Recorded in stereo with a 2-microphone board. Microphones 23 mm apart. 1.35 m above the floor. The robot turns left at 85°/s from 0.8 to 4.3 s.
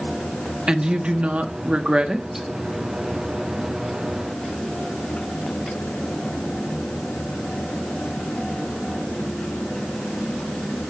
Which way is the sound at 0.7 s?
30° right.